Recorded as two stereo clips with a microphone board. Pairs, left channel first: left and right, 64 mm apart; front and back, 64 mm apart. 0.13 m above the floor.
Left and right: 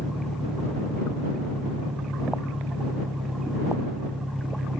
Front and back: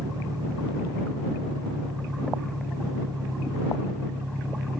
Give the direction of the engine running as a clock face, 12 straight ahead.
6 o'clock.